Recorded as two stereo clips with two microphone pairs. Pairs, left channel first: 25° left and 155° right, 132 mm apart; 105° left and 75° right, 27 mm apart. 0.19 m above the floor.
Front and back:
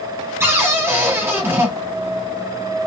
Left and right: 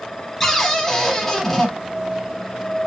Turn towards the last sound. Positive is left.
turn(degrees=160)